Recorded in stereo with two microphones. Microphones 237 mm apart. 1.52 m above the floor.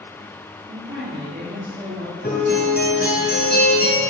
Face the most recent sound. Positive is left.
turn(degrees=40)  # may be behind; listen again after turning